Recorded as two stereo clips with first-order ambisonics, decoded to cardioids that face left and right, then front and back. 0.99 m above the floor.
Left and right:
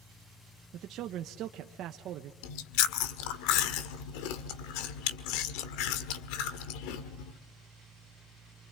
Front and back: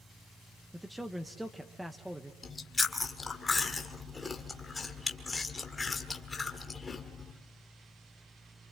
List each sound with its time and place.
0.7 s a man speaking: 95° right, 0.9 m
2.4 s chewing: 80° left, 1.6 m